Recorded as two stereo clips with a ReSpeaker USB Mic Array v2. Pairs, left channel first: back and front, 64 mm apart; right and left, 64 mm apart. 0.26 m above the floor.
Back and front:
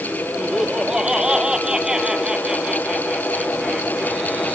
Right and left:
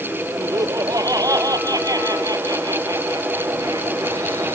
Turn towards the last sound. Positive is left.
turn(degrees=80)